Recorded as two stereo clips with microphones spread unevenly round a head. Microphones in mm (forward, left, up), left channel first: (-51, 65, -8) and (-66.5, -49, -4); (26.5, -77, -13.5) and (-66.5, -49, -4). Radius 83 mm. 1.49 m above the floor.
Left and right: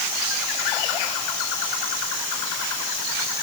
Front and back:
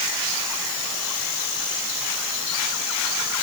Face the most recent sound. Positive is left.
No sound to turn to.